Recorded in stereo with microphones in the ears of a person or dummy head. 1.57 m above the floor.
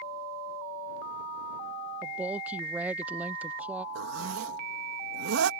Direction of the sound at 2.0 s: 10° right (ahead or behind).